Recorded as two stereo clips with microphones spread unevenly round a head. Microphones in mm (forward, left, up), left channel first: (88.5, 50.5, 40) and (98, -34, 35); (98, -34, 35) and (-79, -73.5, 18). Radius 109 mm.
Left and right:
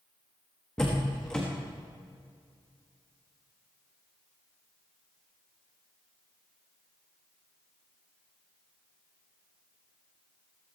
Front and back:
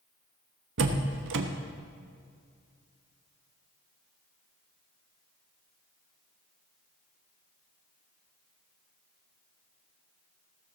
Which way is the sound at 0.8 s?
Straight behind.